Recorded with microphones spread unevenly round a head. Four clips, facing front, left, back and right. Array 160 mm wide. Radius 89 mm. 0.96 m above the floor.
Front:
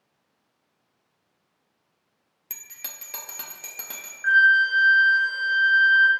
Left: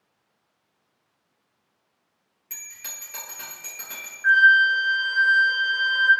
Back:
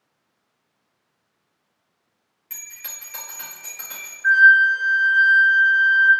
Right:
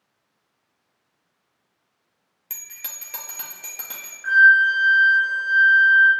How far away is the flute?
About 1.3 m.